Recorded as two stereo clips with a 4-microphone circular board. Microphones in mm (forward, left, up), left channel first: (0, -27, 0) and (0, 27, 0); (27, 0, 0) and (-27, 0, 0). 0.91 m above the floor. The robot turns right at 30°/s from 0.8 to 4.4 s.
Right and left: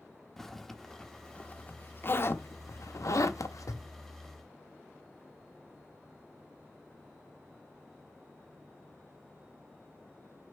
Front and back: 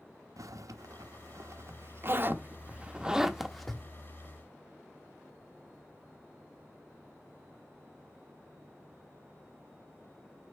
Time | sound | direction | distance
0.4 | a zipper | 170° right | 0.8 m